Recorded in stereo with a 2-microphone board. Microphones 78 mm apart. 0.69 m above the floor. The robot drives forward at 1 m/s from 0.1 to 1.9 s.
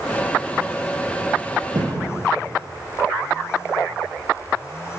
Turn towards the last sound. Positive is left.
turn(degrees=-55)  # may be behind; listen again after turning